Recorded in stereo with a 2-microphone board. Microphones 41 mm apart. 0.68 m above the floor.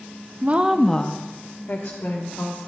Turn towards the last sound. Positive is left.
turn(degrees=75)  # may be behind; listen again after turning